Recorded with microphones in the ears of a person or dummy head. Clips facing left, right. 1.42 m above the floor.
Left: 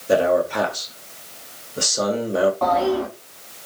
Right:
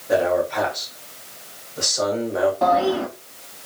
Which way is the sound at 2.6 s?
15° right (ahead or behind).